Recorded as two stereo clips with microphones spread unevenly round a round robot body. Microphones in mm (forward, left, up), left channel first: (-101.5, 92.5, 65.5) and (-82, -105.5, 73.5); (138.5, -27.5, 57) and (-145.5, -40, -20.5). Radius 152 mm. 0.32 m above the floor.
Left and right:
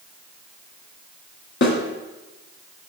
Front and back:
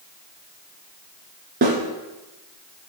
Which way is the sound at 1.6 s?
120° left.